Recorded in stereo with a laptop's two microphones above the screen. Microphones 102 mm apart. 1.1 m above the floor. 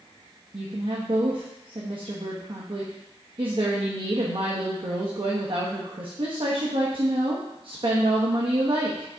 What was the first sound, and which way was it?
A woman speaking, 55° right (ahead or behind).